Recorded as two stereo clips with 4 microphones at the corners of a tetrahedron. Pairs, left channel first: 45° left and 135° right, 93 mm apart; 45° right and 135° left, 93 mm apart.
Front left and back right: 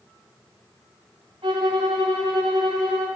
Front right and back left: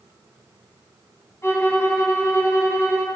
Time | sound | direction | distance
1.4 | a violin | 105° right | 0.9 m